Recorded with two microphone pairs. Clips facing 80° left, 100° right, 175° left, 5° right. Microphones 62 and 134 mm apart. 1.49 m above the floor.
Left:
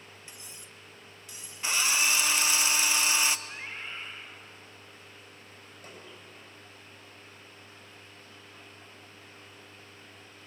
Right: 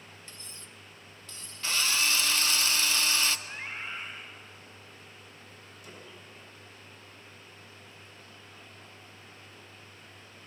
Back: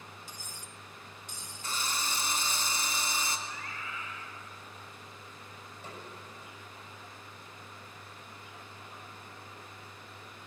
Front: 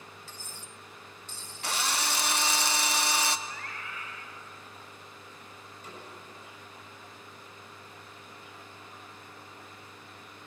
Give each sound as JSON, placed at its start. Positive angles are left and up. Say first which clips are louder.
{"t": 0.3, "sound": "cutlery clinking", "louder": "even, front 1 dB", "azimuth_deg": 135, "distance_m": 0.5}
{"t": 1.6, "sound": "a drill", "louder": "left 1 dB, front 4 dB", "azimuth_deg": 5, "distance_m": 0.8}
{"t": 3.5, "sound": "a scream", "louder": "right 2 dB, even", "azimuth_deg": -25, "distance_m": 3.0}
{"t": 5.8, "sound": "a snare drum", "louder": "left 1 dB, back 1 dB", "azimuth_deg": 115, "distance_m": 9.0}